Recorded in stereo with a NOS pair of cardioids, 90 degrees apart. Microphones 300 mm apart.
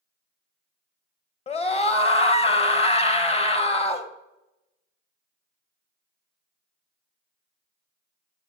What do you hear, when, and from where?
1.5 s a scream: 20° left, 1.2 m